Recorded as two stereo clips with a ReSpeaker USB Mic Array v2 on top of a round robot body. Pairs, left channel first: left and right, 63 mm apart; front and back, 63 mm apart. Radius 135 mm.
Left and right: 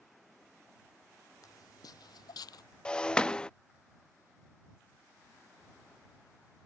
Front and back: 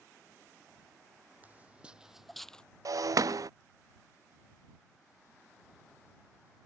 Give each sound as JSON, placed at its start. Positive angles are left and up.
{"t": 1.4, "sound": "footsteps", "azimuth_deg": 115}
{"t": 2.9, "sound": "breaking glass", "azimuth_deg": 165}